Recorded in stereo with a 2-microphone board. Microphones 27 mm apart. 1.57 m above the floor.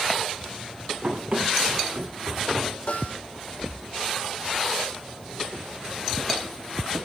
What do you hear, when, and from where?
1.0 s running footsteps: 30° right (ahead or behind), 7 m
2.9 s a snare drum: 60° left (ahead or behind), 6 m